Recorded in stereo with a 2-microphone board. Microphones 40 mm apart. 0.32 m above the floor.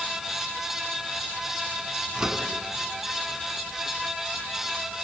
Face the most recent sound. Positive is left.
turn(degrees=-25)  # may be behind; listen again after turning